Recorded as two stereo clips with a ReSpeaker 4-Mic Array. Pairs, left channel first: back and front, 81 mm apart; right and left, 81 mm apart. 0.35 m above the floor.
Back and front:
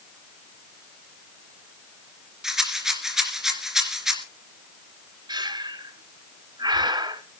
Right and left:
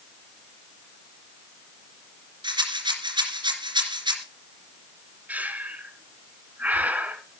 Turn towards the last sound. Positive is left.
turn(degrees=20)